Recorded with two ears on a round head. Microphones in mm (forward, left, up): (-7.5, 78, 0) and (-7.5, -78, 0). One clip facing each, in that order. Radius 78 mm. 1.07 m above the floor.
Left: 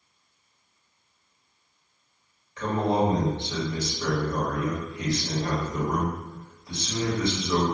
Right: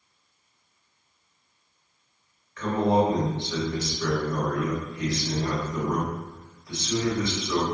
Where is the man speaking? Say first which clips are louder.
Right 2 dB; 20° left (ahead or behind), 1.3 m.